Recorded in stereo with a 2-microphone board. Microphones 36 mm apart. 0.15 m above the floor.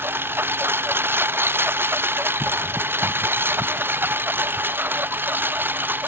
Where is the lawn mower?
80° right; by 6.1 s 65° right (ahead or behind).